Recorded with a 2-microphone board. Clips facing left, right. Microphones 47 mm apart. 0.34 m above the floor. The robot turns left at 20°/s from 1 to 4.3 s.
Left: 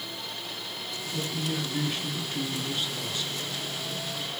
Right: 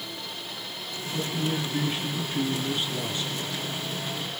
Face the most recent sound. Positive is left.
turn(degrees=-60)